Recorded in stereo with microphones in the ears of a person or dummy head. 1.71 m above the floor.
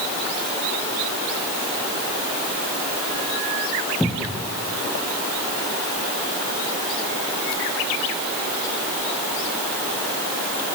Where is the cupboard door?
Centre (ahead or behind), 1.0 m.